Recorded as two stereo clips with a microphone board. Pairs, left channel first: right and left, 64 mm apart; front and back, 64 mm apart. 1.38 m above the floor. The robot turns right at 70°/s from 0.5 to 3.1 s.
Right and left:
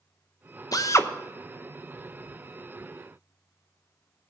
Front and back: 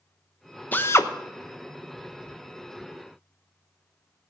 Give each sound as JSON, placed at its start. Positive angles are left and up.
{"t": 0.7, "sound": "a drill", "azimuth_deg": -65, "distance_m": 0.8}